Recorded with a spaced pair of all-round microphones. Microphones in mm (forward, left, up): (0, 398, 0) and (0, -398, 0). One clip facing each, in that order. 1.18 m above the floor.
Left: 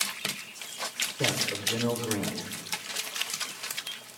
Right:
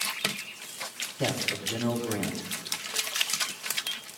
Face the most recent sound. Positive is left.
turn(degrees=5)  # may be behind; listen again after turning